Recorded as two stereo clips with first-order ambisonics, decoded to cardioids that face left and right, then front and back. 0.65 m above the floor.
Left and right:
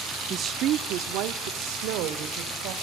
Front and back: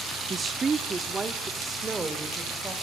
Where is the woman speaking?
125° right, 0.6 m; by 2.7 s 105° right, 2.5 m.